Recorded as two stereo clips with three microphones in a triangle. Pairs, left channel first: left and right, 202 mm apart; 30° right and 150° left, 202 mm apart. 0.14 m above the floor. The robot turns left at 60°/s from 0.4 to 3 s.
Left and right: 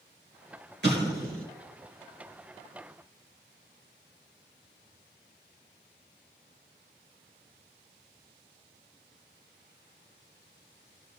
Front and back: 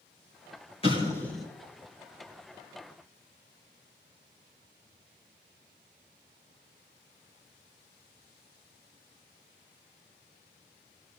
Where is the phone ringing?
I don't hear a phone ringing.